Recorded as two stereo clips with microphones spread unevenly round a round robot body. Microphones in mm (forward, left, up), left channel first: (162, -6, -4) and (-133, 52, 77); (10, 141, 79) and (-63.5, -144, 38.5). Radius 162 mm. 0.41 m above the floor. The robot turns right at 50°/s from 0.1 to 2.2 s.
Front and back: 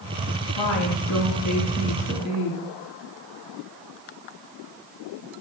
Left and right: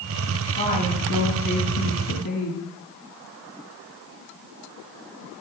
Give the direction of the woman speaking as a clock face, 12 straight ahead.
12 o'clock.